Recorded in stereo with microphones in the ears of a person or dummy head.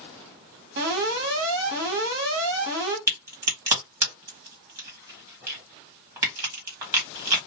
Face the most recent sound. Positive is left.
turn(degrees=-10)  # may be behind; listen again after turning